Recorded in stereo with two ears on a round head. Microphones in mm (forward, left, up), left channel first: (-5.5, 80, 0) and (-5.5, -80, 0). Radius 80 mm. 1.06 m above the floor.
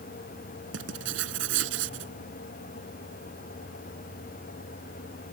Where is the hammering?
I don't hear hammering.